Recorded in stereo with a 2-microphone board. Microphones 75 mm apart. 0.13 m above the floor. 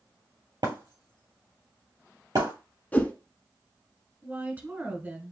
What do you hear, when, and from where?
0.6 s breaking glass: 70° right (ahead or behind), 3 m
2.9 s a whoosh: 20° left (ahead or behind), 0.9 m
4.2 s a woman speaking: 25° right (ahead or behind), 1.5 m